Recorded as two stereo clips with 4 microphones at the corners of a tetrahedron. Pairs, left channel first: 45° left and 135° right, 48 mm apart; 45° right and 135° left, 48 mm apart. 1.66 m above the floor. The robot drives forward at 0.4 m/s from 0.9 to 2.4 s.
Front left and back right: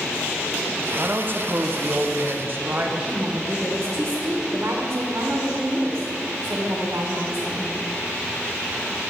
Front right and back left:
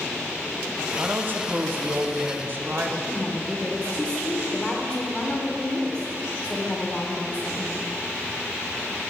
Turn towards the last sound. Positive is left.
turn(degrees=-120)